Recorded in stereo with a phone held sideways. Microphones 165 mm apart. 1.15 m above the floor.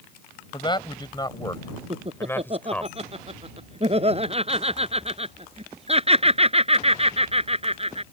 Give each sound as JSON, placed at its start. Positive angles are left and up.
{"t": 0.5, "sound": "a man speaking", "side_deg": 30}
{"t": 1.9, "sound": "laughter", "side_deg": -35}